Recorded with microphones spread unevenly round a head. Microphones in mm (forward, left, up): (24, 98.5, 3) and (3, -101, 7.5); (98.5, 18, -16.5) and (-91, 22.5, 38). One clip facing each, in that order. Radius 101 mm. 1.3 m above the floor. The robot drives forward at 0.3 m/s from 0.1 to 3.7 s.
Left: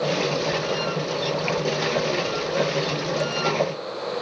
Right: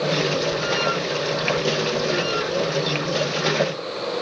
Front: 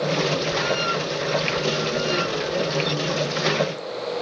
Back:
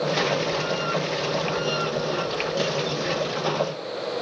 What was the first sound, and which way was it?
Only background noise.